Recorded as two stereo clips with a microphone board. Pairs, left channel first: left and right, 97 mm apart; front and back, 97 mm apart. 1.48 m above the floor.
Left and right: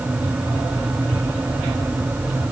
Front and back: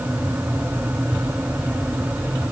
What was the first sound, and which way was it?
Only background noise.